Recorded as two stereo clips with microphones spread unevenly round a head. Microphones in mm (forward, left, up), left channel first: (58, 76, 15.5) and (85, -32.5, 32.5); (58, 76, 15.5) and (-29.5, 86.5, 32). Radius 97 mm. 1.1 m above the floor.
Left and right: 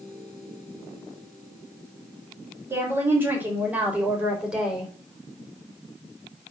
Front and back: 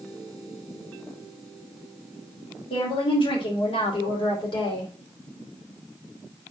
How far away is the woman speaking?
About 3.5 m.